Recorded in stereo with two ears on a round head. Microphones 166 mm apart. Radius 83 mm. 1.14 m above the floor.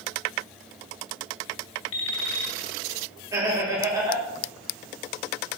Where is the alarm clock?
75° left (ahead or behind), 2.5 m.